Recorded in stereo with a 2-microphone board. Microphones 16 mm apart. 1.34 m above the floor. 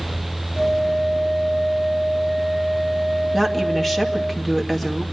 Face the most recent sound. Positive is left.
turn(degrees=5)  # may be behind; listen again after turning